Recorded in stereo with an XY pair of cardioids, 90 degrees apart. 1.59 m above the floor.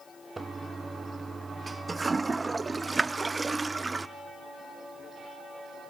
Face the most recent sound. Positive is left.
turn(degrees=-25)